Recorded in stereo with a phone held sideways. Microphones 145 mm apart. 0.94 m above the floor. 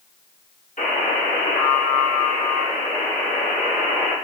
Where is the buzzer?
65° left (ahead or behind), 1.2 m.